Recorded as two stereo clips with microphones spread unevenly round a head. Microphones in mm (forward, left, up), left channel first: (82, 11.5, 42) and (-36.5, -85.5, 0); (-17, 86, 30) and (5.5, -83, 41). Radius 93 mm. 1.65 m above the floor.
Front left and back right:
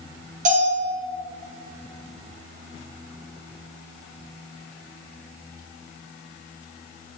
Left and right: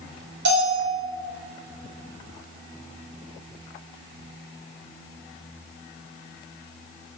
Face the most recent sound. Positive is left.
turn(degrees=-105)